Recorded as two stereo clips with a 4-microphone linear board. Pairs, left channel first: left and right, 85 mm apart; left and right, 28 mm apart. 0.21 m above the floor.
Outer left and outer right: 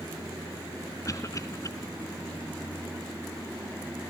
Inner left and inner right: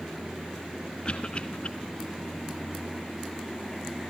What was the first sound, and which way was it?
A cough, 40° left (ahead or behind).